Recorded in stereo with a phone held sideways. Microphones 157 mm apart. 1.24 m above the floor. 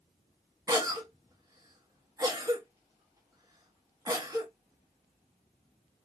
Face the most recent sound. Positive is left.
turn(degrees=-25)  # may be behind; listen again after turning